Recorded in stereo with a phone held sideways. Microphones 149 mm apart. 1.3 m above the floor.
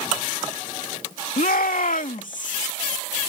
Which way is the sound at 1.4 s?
80° left.